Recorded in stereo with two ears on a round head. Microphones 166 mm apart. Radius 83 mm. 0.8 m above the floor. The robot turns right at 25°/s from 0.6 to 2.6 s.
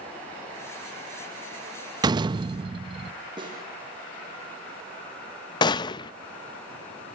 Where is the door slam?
20° right (ahead or behind), 0.5 m; by 3.1 s 30° right (ahead or behind), 0.5 m.